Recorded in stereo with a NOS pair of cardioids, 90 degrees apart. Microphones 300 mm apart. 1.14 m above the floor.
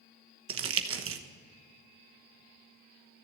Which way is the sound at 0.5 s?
50° right.